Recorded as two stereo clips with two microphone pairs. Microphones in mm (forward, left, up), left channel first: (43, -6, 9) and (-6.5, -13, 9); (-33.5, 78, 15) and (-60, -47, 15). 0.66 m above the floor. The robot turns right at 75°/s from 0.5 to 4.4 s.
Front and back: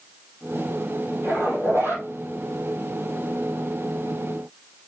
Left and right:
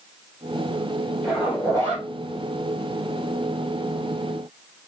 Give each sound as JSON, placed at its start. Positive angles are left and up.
{"t": 1.2, "sound": "a zipper", "azimuth_deg": 160, "distance_m": 4.0}